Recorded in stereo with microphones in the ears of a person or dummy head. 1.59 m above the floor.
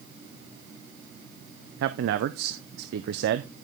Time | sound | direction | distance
1.8 | a man speaking | 65° right (ahead or behind) | 0.8 m